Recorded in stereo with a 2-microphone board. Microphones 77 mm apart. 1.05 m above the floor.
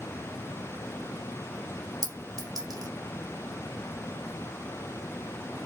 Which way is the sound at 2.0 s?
55° right (ahead or behind).